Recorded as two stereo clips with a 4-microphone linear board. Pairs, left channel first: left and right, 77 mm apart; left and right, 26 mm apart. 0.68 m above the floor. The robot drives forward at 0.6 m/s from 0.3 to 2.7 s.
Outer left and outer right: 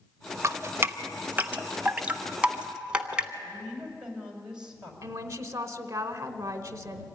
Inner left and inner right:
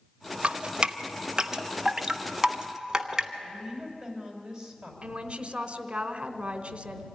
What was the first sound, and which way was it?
Dripping, 40° right (ahead or behind).